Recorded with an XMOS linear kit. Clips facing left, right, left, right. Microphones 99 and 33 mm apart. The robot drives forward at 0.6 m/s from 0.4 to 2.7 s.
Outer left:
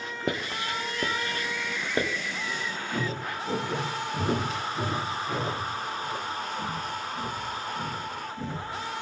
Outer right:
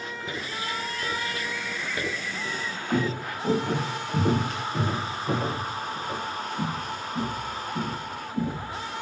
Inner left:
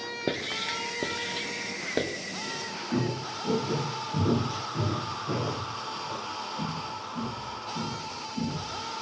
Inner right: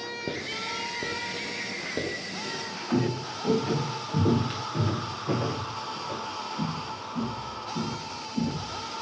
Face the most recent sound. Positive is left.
turn(degrees=-75)  # may be behind; listen again after turning